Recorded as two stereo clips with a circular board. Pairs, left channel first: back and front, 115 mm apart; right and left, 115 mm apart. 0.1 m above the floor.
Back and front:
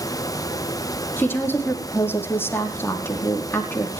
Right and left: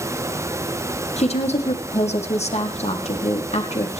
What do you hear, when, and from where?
1.2 s a woman speaking: 110° right, 5 m